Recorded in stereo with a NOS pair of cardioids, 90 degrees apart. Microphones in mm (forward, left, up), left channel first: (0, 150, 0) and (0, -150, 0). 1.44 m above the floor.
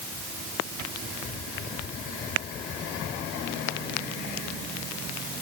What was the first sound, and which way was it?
Only background noise.